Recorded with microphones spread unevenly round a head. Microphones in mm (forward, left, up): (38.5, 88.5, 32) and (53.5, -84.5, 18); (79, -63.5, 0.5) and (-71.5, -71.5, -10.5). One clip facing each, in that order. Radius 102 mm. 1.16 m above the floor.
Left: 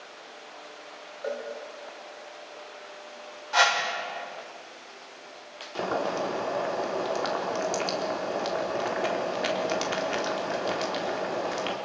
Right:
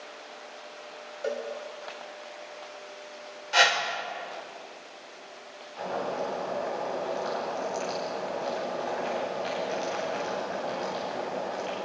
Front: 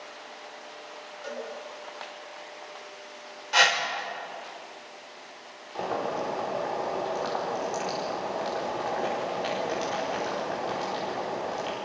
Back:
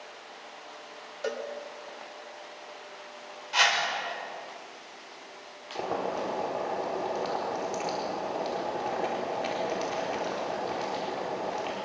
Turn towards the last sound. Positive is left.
turn(degrees=100)